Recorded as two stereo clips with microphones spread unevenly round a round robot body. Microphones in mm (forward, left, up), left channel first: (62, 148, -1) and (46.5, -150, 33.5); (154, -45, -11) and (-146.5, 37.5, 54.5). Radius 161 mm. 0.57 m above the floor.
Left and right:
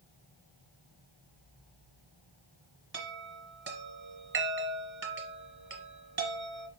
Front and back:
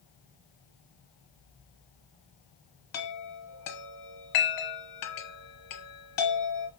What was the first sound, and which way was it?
A chime, 45° right.